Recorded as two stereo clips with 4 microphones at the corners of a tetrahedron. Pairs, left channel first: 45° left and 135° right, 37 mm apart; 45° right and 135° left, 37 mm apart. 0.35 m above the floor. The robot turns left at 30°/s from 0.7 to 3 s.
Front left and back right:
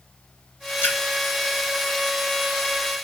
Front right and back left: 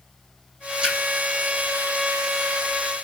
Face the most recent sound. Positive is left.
turn(degrees=0)